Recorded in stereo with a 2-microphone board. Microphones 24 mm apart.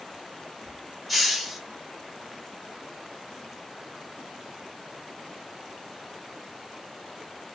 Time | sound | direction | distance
1.1 | a hiss | centre (ahead or behind) | 1.1 m